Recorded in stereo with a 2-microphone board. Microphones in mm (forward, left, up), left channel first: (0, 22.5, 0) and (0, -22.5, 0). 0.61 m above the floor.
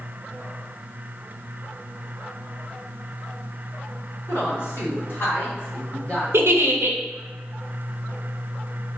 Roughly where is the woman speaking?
Left.